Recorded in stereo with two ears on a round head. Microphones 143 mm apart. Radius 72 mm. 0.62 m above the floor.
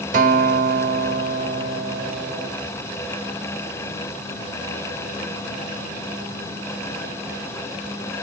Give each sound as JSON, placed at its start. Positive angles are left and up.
{"t": 0.1, "sound": "a guitar", "side_deg": -50, "distance_m": 0.6}